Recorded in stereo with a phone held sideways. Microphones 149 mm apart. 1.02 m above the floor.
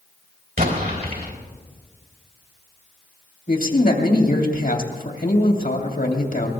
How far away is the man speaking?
About 2.5 m.